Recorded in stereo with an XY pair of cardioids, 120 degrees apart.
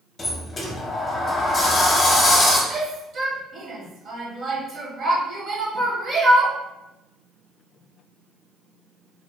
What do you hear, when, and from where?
0.2 s a sliding door: 35° left, 0.6 m
2.7 s a shout: 45° right, 0.8 m